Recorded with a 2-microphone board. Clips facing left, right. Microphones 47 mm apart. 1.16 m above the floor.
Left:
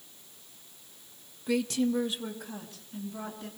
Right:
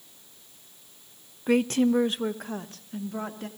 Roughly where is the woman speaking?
Right.